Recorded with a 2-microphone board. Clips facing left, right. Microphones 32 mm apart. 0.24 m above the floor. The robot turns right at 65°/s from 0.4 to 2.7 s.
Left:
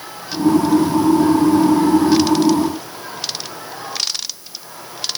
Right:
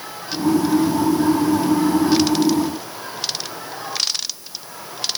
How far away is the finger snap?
I don't hear a finger snap.